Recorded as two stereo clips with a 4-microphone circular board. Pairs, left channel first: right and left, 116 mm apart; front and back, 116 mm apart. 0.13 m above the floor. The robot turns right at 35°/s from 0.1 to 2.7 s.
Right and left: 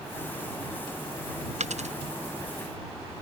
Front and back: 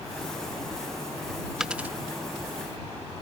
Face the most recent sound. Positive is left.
turn(degrees=135)